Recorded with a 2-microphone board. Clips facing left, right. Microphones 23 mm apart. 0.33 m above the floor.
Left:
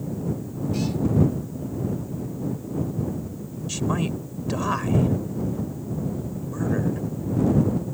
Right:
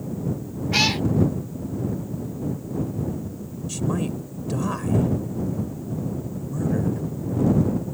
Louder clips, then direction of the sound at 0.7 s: Right 8 dB; 55° right (ahead or behind).